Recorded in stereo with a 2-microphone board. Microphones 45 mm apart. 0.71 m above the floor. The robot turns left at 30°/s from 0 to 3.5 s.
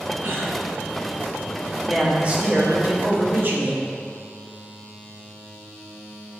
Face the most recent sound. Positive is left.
turn(degrees=-75)